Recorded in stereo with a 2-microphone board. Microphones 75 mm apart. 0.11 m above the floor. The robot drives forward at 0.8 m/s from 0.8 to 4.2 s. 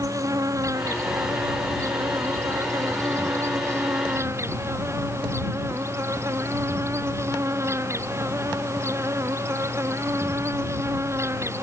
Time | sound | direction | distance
0.0 | an insect | 40° right (ahead or behind) | ?